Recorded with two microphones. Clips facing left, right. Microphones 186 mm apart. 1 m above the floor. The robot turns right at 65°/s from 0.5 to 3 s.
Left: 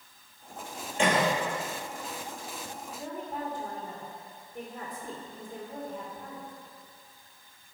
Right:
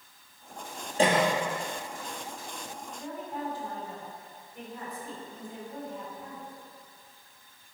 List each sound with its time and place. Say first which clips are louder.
1.0 s a cough: right 2 dB; 35° right (ahead or behind), 1.4 m; by 1.3 s 15° right (ahead or behind), 1.4 m
3.0 s a woman speaking: even; 50° left (ahead or behind), 2.5 m